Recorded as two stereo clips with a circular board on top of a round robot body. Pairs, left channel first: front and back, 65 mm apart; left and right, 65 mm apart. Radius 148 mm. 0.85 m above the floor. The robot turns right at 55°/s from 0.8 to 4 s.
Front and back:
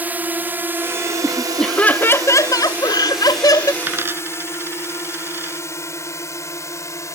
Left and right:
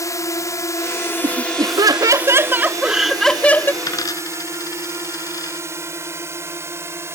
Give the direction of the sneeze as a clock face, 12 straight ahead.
No sneeze in this recording.